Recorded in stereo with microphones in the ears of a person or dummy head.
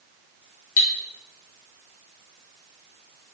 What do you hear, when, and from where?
0.8 s cutlery clinking: 55° left (ahead or behind), 0.8 m